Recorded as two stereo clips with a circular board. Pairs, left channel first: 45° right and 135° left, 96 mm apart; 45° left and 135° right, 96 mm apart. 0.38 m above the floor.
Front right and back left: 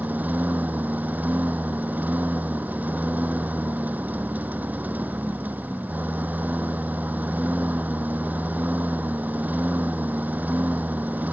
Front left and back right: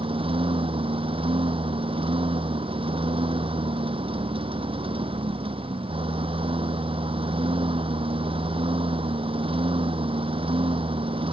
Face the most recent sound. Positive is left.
turn(degrees=-150)